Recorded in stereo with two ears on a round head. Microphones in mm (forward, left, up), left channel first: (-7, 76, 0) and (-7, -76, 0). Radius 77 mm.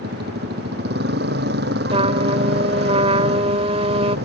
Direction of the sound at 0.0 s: 70° right (ahead or behind).